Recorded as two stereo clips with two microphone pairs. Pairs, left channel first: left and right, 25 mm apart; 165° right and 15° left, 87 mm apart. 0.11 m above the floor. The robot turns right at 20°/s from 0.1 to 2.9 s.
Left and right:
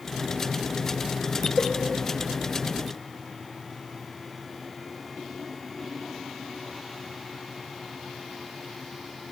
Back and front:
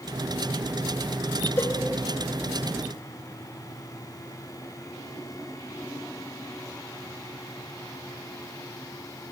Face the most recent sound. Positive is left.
turn(degrees=-165)